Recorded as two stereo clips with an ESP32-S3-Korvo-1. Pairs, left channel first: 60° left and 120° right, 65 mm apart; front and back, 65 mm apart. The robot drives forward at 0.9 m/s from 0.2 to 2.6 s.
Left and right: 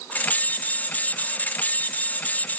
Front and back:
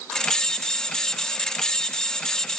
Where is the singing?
No singing in this recording.